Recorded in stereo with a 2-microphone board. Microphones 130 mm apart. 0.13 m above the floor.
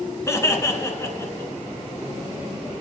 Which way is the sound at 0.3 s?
25° left (ahead or behind).